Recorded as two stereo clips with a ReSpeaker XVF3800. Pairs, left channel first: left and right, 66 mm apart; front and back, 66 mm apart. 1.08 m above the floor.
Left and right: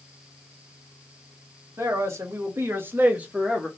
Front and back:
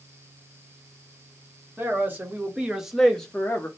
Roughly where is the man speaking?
Behind right.